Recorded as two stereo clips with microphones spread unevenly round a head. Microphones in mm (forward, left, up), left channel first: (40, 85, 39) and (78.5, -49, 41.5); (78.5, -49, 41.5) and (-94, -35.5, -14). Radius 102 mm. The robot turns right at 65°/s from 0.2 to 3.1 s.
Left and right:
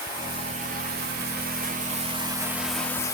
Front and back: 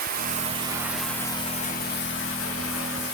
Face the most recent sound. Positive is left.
turn(degrees=40)